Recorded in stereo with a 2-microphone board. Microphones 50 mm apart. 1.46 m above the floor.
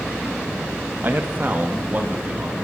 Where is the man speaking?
45° right (ahead or behind), 1.8 m; by 2.5 s 35° right (ahead or behind), 3.5 m.